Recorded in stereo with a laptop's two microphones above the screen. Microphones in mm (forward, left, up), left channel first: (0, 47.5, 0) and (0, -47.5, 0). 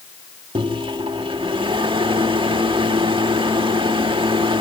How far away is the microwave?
About 1.7 m.